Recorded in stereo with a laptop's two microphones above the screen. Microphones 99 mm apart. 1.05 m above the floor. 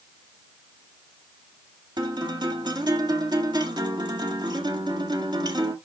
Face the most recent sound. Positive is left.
turn(degrees=-45)  # may be behind; listen again after turning